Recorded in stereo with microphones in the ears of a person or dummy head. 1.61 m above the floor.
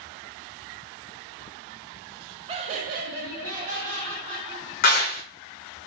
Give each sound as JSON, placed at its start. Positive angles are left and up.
{"t": 2.5, "sound": "laughter", "side_deg": -30, "distance_m": 0.6}
{"t": 4.8, "sound": "a clap", "side_deg": 45, "distance_m": 0.8}